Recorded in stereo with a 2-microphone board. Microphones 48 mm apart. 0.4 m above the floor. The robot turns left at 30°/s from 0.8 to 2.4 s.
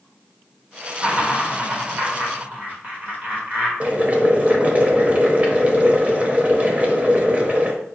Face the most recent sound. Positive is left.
turn(degrees=-35)  # may be behind; listen again after turning